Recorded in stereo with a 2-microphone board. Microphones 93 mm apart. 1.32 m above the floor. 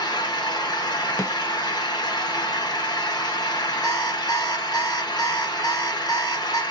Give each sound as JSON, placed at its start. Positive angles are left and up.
{"t": 0.0, "sound": "an engine running", "side_deg": 45, "distance_m": 0.9}
{"t": 1.2, "sound": "a snare drum", "side_deg": 30, "distance_m": 0.6}
{"t": 3.8, "sound": "an alarm clock", "side_deg": 40, "distance_m": 1.0}